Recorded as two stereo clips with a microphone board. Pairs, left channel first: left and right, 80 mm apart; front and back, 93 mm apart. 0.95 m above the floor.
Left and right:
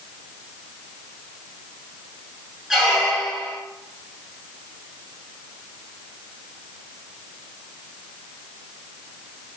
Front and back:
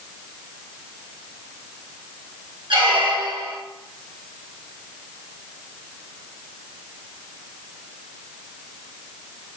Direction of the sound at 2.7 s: 175° right.